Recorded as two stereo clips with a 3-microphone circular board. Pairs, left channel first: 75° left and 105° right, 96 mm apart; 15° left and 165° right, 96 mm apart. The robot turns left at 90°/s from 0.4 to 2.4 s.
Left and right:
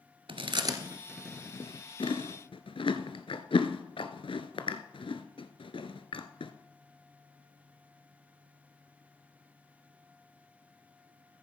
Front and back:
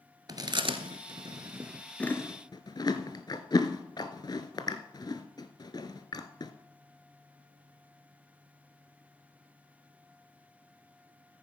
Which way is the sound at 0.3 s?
125° right.